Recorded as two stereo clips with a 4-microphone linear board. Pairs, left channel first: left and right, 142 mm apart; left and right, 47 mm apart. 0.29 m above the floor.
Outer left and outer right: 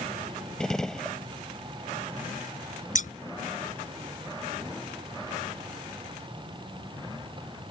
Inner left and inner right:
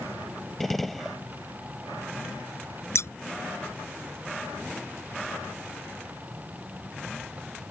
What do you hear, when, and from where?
0.6 s a gunshot: 5° left (ahead or behind)
3.0 s scissors: 65° left (ahead or behind)